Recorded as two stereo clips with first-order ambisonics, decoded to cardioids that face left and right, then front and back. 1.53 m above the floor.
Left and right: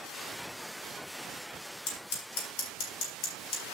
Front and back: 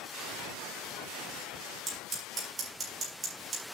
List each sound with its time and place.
1.9 s scissors: 110° left, 5 m